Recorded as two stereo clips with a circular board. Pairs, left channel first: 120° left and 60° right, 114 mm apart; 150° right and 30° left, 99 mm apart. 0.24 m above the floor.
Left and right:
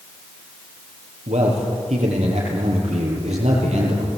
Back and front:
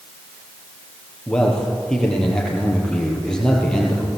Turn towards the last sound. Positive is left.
turn(degrees=-70)